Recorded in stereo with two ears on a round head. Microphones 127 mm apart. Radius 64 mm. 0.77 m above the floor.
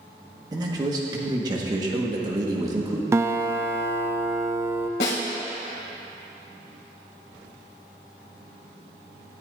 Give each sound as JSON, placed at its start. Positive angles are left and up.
{"t": 0.5, "sound": "a man speaking", "side_deg": -30, "distance_m": 1.4}
{"t": 3.1, "sound": "a guitar", "side_deg": -20, "distance_m": 0.6}
{"t": 5.0, "sound": "a snare drum", "side_deg": 90, "distance_m": 2.0}